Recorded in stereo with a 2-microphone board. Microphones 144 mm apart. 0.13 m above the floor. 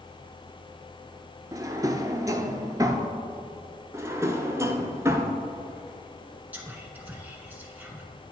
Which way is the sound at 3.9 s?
20° right (ahead or behind).